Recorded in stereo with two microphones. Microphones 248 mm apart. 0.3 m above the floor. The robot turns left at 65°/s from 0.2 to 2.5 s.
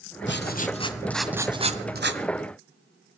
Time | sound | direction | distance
0.3 | writing | 60° left | 1.3 m